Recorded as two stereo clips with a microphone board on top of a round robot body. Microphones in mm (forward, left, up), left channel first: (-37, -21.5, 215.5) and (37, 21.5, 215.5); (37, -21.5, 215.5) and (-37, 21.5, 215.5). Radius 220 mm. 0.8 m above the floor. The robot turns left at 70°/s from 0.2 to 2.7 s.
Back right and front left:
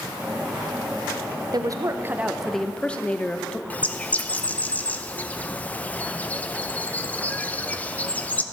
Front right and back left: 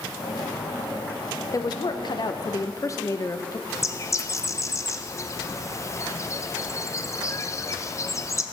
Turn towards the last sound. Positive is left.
turn(degrees=-80)